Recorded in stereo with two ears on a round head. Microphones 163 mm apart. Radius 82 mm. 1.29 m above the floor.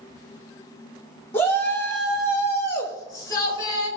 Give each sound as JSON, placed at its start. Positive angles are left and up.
{"t": 1.3, "sound": "a shout", "side_deg": 10, "distance_m": 3.0}